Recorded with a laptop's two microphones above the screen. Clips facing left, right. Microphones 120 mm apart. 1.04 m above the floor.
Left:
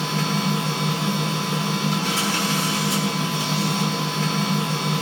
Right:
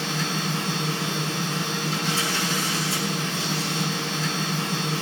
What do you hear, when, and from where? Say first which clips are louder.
0.0 s a machine running: left 4 dB; 70° left (ahead or behind), 8.5 m